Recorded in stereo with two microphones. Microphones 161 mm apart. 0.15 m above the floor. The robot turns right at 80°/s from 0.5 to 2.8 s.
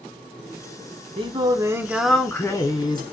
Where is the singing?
75° right, 0.6 m; by 3.0 s 55° left, 0.6 m.